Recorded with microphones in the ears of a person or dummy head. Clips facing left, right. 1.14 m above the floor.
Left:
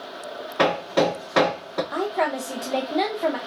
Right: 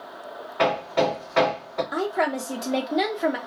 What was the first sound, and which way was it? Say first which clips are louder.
Hammering: left 2 dB; 70° left (ahead or behind).